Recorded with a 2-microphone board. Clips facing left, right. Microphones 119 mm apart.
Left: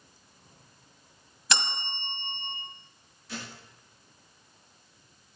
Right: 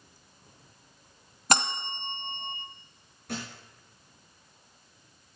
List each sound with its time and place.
1.5 s a bell: 45° right (ahead or behind), 1.2 m
3.3 s a thud: 55° right (ahead or behind), 8 m